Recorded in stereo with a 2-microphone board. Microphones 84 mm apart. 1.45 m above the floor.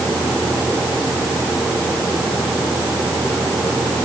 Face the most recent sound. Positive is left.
No sound to turn to.